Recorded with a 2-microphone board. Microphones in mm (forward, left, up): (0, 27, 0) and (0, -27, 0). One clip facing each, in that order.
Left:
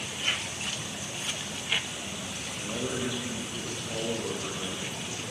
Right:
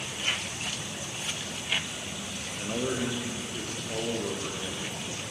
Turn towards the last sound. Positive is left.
turn(degrees=0)  # may be behind; listen again after turning